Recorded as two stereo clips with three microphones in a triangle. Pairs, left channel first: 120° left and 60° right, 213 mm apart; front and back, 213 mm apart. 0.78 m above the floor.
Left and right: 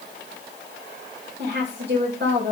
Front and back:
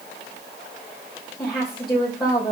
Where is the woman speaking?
85° right, 3 m.